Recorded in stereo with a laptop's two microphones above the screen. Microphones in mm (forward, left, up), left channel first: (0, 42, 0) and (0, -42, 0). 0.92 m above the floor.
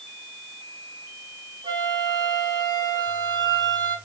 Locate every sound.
1.6 s a flute: 55° right (ahead or behind), 5 m